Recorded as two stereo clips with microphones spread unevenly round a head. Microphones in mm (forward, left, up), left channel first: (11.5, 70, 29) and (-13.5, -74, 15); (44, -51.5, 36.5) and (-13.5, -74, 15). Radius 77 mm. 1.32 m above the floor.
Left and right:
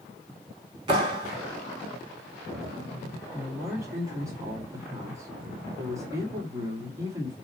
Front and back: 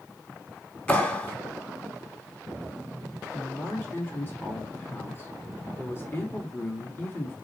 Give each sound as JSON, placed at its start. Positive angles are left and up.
{"t": 0.9, "sound": "a clap", "azimuth_deg": -40, "distance_m": 4.0}
{"t": 3.3, "sound": "a man speaking", "azimuth_deg": -30, "distance_m": 2.5}